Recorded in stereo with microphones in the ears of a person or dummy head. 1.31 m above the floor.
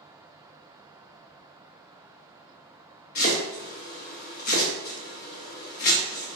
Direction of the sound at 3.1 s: 50° left (ahead or behind).